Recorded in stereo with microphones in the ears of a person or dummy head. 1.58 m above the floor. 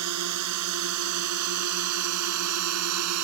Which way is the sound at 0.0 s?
70° right (ahead or behind).